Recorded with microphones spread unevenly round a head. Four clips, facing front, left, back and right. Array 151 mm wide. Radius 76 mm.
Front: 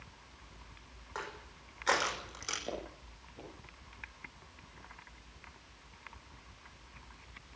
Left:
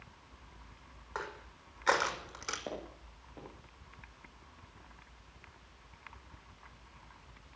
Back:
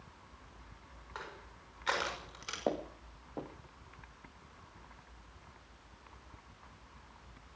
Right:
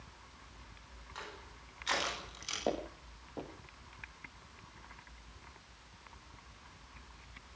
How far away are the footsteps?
About 6.5 m.